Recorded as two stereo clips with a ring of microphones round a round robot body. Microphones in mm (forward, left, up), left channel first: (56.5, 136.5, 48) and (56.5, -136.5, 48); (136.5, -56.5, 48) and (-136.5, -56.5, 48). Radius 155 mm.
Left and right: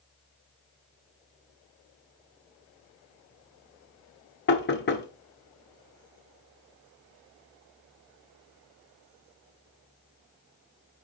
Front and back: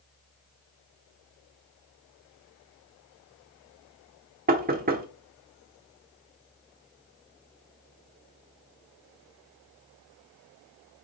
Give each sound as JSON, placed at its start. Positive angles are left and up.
{"t": 4.5, "sound": "knocking", "azimuth_deg": 130, "distance_m": 1.3}